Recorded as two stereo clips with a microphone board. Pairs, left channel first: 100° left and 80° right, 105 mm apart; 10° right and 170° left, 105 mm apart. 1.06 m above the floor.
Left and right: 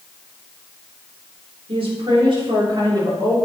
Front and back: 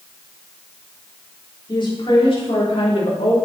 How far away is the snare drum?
No snare drum in this recording.